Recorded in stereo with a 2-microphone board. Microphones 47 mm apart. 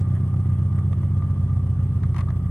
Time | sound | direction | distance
0.0 | an engine running | 60° left (ahead or behind) | 0.9 m